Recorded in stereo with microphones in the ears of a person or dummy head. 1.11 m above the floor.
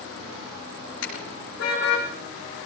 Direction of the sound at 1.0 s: 70° left (ahead or behind).